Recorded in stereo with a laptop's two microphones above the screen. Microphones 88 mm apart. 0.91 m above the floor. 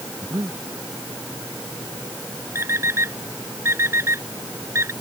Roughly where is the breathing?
Right.